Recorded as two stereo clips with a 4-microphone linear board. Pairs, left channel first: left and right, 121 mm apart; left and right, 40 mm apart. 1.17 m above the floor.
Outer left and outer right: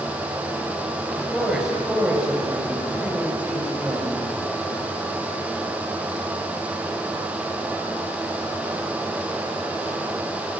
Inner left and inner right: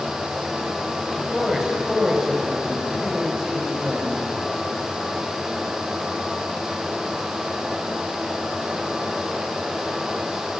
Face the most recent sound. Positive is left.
turn(degrees=-15)  # may be behind; listen again after turning